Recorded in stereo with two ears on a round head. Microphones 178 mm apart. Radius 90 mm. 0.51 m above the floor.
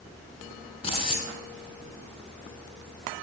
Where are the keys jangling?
30° left (ahead or behind), 4 m.